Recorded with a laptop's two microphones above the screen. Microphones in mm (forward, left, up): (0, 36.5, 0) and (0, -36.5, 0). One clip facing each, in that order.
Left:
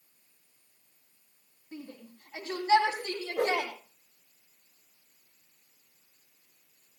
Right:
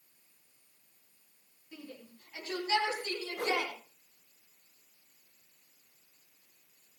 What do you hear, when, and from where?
1.7 s a shout: 30° left (ahead or behind), 9 m; by 3.7 s 45° left (ahead or behind), 8 m
3.4 s a whoosh: 65° left (ahead or behind), 6.5 m